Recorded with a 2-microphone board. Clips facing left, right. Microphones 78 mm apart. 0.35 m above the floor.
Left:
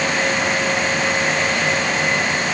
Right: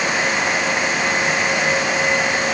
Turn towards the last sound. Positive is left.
No sound to turn to.